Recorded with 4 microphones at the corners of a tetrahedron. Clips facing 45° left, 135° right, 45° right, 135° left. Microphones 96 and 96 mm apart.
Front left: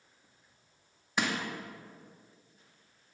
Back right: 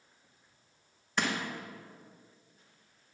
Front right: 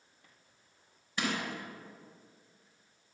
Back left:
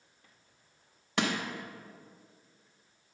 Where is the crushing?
130° left, 1.4 m.